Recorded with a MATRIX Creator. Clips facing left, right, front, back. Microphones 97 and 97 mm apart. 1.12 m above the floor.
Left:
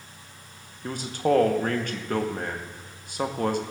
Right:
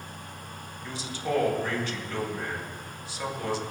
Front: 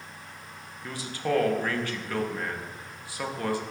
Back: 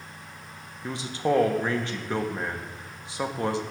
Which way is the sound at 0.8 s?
115° left.